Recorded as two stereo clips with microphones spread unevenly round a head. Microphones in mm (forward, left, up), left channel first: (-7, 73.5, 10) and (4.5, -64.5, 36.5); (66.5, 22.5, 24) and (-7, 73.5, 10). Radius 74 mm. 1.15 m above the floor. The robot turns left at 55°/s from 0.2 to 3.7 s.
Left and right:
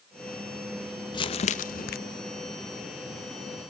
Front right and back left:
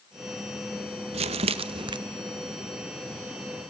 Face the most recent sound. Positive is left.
turn(degrees=15)